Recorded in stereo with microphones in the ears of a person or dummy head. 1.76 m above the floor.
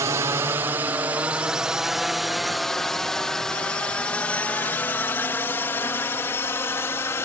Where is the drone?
15° right (ahead or behind); by 7.2 s 15° left (ahead or behind).